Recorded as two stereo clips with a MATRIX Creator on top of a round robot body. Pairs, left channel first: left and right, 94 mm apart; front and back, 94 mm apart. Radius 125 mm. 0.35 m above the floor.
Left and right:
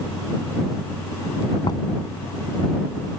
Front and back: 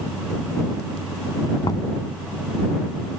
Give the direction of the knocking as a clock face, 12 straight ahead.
10 o'clock.